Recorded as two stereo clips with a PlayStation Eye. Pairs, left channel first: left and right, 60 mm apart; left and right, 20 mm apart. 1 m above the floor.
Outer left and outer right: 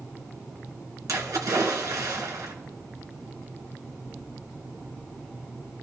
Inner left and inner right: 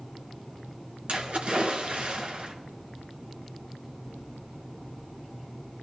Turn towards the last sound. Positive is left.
turn(degrees=-70)  # may be behind; listen again after turning